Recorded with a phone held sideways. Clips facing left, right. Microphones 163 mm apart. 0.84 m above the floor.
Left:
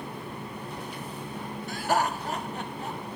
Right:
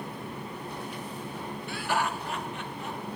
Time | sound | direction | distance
1.7 | laughter | 40° left (ahead or behind) | 1.0 m